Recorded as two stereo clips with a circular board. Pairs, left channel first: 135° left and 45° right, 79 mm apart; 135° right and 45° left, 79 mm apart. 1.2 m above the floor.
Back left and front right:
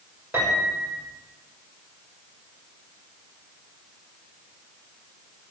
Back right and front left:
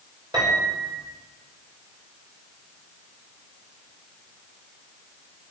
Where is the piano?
15° left, 6 m.